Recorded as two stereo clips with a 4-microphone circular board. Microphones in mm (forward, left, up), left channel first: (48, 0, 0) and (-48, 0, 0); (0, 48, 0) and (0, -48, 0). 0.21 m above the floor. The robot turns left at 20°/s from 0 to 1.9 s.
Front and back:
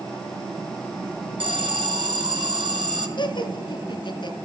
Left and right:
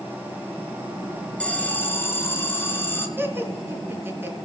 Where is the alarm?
165° left, 4.5 m; by 3.1 s 155° left, 4.5 m.